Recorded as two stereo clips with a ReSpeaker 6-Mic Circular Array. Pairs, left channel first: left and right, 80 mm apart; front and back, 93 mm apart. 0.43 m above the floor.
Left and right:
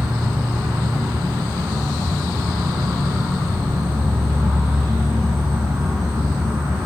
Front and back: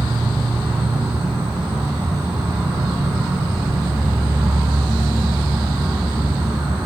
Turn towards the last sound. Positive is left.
turn(degrees=-145)